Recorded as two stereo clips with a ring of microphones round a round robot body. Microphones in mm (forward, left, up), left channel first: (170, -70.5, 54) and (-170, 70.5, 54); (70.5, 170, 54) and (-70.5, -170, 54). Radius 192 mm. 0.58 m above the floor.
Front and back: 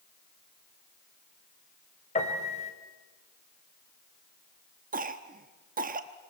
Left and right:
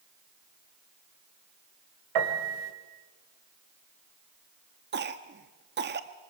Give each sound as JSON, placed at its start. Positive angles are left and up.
{"t": 2.1, "sound": "a piano", "azimuth_deg": -95, "distance_m": 3.0}
{"t": 4.9, "sound": "a cough", "azimuth_deg": -150, "distance_m": 1.0}